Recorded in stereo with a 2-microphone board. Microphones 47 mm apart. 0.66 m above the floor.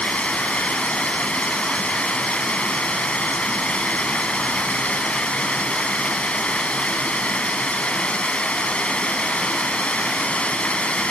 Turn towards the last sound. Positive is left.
turn(degrees=25)  # may be behind; listen again after turning